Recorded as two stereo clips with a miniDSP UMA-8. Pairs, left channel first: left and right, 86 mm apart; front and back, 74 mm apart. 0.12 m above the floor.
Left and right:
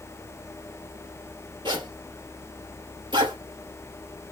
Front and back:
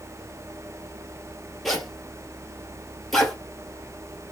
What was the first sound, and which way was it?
A zipper, 85° right.